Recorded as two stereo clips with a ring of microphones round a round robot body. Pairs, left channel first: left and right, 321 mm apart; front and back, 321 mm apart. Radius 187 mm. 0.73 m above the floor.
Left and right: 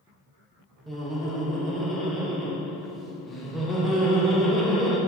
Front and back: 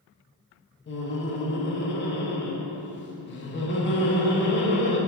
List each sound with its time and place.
0.9 s laughter: straight ahead, 0.6 m